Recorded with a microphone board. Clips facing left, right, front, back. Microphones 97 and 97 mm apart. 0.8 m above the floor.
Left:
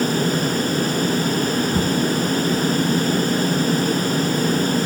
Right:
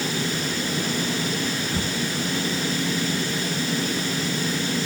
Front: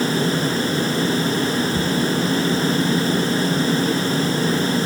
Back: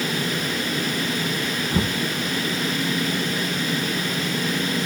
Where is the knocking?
155° left.